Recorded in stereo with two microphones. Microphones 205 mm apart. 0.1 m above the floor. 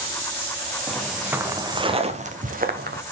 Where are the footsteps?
5° left (ahead or behind), 1.1 m; by 3.0 s 50° right (ahead or behind), 1.6 m.